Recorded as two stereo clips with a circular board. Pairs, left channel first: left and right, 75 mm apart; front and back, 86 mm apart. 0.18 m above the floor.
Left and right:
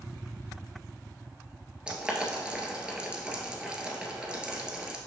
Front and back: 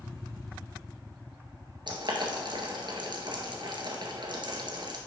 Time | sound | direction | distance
1.9 | boiling | 165° right | 1.6 m